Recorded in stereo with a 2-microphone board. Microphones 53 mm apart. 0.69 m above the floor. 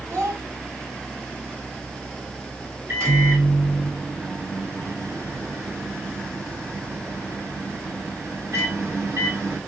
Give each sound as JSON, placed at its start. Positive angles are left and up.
{"t": 0.1, "sound": "a child speaking", "side_deg": -65, "distance_m": 2.5}
{"t": 2.9, "sound": "a microwave", "side_deg": -65, "distance_m": 2.0}